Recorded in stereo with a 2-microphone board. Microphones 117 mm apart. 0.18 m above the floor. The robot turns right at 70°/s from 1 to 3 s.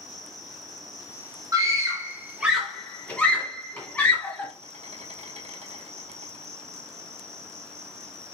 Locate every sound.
0.0 s an insect: 150° left, 1.0 m; by 8.3 s 70° right, 1.0 m
1.5 s a scream: 30° right (ahead or behind), 1.5 m; by 4.5 s 10° left (ahead or behind), 1.5 m